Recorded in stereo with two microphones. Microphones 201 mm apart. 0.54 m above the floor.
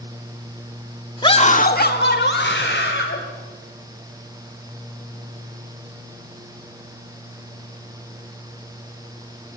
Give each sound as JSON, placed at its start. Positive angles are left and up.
{"t": 1.2, "sound": "a scream", "side_deg": 20, "distance_m": 1.1}